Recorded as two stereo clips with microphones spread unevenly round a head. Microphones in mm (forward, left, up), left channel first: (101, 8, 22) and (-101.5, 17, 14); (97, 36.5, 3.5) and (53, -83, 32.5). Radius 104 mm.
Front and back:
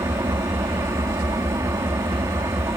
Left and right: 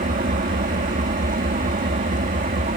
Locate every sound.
0.0 s an engine running: 105° right